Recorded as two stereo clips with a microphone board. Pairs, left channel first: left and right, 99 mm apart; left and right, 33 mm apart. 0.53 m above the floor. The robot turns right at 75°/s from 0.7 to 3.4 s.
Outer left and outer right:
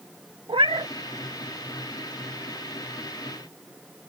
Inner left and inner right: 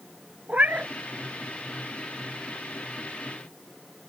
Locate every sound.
0.5 s a cat meowing: 60° right (ahead or behind); by 0.9 s 50° right (ahead or behind)